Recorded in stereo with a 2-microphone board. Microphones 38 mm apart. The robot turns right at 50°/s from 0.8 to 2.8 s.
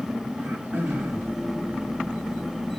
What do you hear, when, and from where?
0.4 s throat clearing: 55° right (ahead or behind), 2.5 m; by 1.3 s 75° right (ahead or behind), 2.5 m